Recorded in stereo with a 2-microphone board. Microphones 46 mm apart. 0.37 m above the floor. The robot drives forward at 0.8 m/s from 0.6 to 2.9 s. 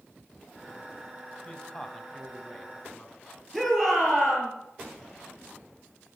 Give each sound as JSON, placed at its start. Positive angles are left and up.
{"t": 1.4, "sound": "a man speaking", "side_deg": 20, "distance_m": 2.5}
{"t": 3.5, "sound": "a shout", "side_deg": 5, "distance_m": 7.0}